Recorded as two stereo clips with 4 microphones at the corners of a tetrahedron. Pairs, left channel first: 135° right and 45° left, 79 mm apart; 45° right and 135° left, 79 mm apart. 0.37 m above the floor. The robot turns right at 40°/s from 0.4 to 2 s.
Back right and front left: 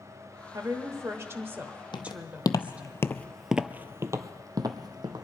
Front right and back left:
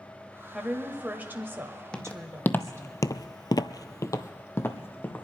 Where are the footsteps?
125° right, 1.1 m; by 5.3 s 20° left, 1.4 m.